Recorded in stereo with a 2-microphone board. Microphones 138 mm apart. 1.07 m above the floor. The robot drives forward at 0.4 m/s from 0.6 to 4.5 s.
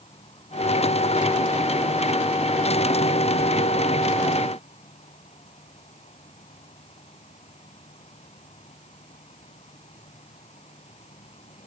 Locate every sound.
0.0 s an insect: 45° left (ahead or behind); by 11.7 s 50° left (ahead or behind)